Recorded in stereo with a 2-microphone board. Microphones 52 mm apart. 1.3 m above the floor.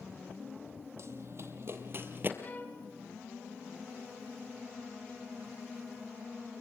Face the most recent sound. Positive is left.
turn(degrees=35)  # may be behind; listen again after turning